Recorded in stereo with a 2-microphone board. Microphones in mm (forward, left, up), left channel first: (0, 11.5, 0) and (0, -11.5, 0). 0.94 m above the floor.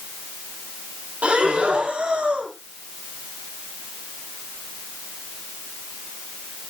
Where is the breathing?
85° right, 4.5 m.